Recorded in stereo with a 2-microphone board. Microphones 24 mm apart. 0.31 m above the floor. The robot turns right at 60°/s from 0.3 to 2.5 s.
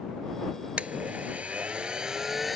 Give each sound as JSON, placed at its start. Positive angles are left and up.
{"t": 0.8, "sound": "a blender", "azimuth_deg": -110}